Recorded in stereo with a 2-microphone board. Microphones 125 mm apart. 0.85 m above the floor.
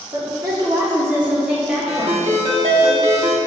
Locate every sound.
0.1 s a woman speaking: 40° right (ahead or behind), 2 m; by 2.9 s 15° left (ahead or behind), 3.5 m
1.9 s a ringtone: 60° right (ahead or behind), 1.0 m